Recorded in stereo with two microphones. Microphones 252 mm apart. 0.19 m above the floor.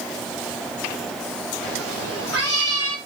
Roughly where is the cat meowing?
Right.